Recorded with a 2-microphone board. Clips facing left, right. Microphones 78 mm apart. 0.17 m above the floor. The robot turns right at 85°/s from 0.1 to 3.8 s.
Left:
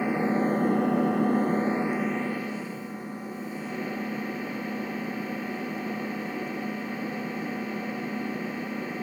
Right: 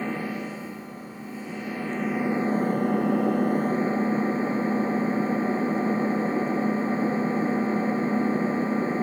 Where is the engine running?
15° left, 0.8 m; by 9.0 s 30° right, 0.8 m.